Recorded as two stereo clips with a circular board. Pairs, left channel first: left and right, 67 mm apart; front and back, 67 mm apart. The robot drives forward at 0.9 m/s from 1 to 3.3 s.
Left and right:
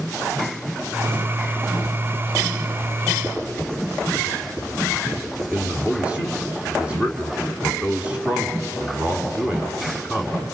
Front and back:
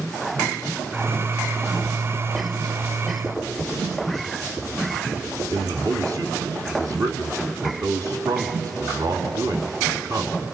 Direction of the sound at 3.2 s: 130° right.